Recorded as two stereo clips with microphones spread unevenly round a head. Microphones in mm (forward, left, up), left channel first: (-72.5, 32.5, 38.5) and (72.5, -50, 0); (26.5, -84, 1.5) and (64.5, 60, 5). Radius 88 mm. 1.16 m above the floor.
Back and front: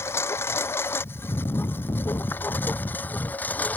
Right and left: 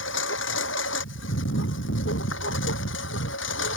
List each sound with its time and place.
0.0 s a lawn mower: 135° right; by 3.8 s 130° right